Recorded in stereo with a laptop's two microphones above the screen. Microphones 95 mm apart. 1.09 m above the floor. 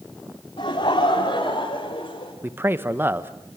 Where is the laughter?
70° left (ahead or behind), 3 m; by 2.3 s 75° left (ahead or behind), 5.5 m.